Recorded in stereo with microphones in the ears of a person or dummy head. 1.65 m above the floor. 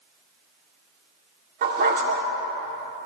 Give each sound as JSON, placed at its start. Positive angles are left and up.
{"t": 1.6, "sound": "a dog barking", "side_deg": -45, "distance_m": 2.0}